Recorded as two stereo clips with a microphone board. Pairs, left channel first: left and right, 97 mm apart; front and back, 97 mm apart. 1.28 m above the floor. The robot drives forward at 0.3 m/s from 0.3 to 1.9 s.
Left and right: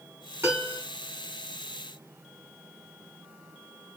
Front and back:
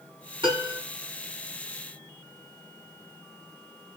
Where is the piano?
150° right, 4 m.